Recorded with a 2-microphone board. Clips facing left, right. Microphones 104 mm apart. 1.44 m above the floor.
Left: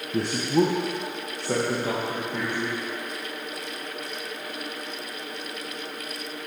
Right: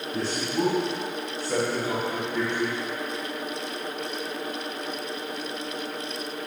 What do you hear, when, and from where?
0.1 s a man speaking: 65° left (ahead or behind), 0.9 m; by 2.8 s 70° left (ahead or behind), 2 m